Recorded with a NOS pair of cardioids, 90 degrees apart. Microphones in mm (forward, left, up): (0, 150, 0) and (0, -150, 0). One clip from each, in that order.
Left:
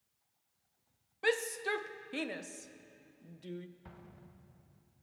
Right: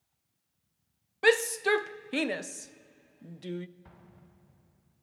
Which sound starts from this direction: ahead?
An explosion, at 3.9 s.